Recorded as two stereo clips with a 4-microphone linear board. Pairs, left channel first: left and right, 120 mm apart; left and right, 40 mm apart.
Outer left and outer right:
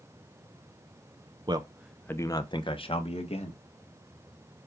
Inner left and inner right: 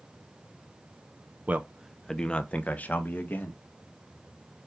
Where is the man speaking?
35° right (ahead or behind), 0.6 m; by 3.6 s 55° left (ahead or behind), 1.9 m.